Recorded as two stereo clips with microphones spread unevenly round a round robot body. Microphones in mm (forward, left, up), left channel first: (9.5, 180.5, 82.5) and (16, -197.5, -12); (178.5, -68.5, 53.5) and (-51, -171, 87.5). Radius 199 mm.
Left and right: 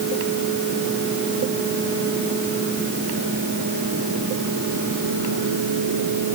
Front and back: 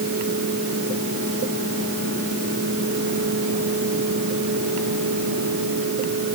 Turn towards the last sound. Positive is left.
No sound to turn to.